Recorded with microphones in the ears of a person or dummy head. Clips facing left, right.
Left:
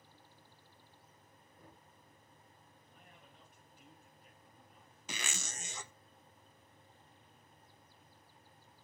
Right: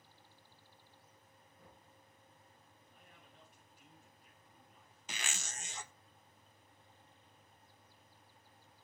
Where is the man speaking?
40° left (ahead or behind), 8.5 m.